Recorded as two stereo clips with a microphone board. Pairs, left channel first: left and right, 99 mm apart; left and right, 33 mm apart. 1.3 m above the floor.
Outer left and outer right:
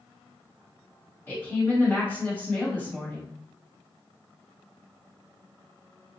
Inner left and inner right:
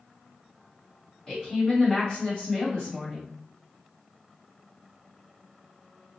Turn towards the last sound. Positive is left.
turn(degrees=25)  # may be behind; listen again after turning